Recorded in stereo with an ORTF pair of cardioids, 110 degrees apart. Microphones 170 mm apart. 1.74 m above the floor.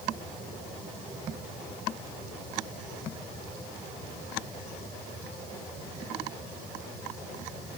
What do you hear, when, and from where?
Only background noise.